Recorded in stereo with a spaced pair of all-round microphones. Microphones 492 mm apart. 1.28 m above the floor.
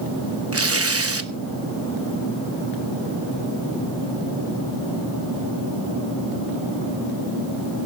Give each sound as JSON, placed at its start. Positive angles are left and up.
{"t": 0.5, "sound": "tearing paper", "side_deg": -30, "distance_m": 0.9}